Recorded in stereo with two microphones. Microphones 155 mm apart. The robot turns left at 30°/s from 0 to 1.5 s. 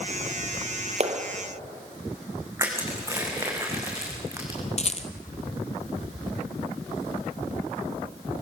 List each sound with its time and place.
1.0 s a clap: 45° right (ahead or behind), 2.5 m; by 1.2 s 40° right (ahead or behind), 2.5 m
2.6 s crushing: 20° right (ahead or behind), 5 m
4.8 s a rattle: 45° left (ahead or behind), 1.5 m